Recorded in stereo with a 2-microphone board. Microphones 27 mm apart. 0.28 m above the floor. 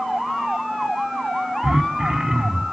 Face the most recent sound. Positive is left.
turn(degrees=-25)  # may be behind; listen again after turning